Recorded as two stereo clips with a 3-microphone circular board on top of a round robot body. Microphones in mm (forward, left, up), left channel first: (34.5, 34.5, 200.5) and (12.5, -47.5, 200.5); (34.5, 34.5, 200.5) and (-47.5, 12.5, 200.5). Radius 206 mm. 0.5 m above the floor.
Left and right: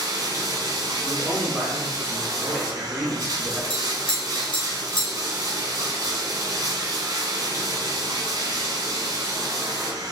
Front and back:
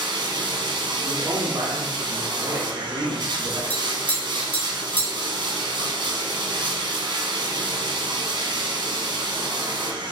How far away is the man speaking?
About 1.3 m.